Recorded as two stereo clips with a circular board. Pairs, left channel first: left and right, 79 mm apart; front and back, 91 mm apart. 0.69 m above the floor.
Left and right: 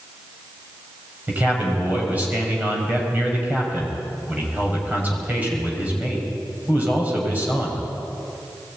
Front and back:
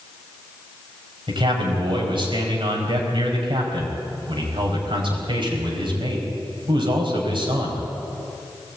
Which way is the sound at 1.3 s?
160° right.